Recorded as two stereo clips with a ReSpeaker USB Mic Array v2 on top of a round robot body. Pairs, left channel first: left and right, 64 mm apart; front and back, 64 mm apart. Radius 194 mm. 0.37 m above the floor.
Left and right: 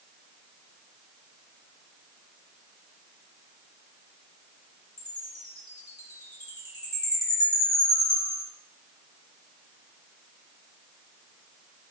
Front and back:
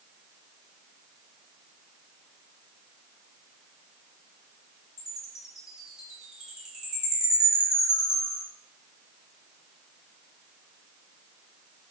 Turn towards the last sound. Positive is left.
turn(degrees=100)